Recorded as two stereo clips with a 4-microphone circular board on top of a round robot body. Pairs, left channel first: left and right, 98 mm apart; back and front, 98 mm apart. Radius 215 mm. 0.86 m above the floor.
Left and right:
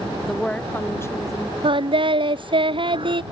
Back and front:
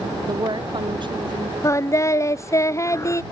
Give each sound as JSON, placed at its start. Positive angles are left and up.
{"t": 0.3, "sound": "a woman speaking", "azimuth_deg": 0}
{"t": 1.6, "sound": "singing", "azimuth_deg": -120}